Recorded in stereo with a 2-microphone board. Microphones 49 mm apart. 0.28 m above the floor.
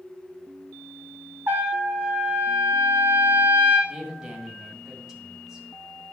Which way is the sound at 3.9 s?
10° right (ahead or behind).